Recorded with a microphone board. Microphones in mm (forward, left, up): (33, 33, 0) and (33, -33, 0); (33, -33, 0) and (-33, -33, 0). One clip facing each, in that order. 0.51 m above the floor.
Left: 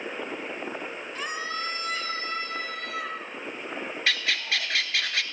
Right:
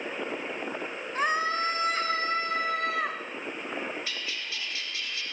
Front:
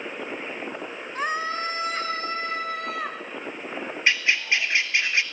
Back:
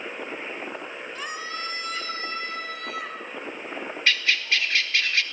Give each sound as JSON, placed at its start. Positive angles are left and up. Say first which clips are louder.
{"t": 1.1, "sound": "a scream", "louder": "right 7 dB, front 9 dB", "azimuth_deg": -45, "distance_m": 1.7}
{"t": 4.1, "sound": "a bird", "louder": "left 9 dB, front 1 dB", "azimuth_deg": 70, "distance_m": 1.6}